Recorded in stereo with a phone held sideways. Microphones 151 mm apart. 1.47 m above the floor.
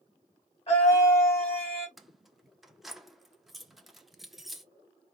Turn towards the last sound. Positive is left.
turn(degrees=0)  # may be behind; listen again after turning